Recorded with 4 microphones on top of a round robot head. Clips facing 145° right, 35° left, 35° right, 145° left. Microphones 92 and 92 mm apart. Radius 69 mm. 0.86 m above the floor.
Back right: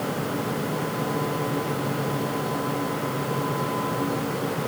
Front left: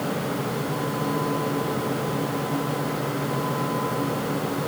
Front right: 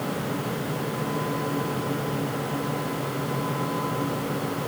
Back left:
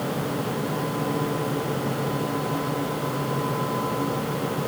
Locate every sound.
Only background noise.